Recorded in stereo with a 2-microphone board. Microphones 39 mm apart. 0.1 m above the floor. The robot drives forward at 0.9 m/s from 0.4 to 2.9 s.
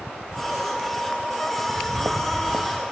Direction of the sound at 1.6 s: 35° right (ahead or behind).